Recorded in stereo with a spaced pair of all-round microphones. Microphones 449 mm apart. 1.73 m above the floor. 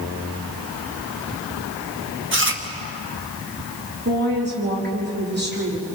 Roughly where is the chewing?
Right.